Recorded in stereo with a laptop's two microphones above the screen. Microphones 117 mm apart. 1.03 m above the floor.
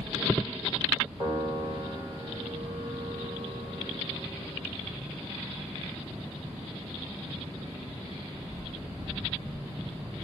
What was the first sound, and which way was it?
A piano, 35° right (ahead or behind).